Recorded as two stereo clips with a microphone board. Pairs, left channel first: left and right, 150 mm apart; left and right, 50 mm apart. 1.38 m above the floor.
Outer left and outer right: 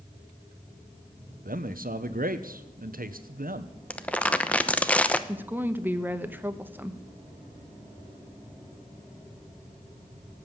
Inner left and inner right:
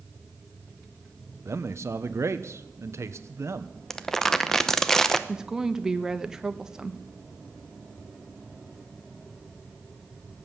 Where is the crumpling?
10° left (ahead or behind), 0.8 m.